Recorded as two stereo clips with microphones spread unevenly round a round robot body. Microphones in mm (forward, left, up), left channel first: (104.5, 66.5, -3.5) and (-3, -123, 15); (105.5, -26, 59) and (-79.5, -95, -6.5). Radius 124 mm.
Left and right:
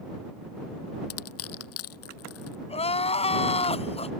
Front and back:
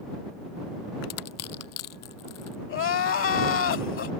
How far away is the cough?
No cough in this recording.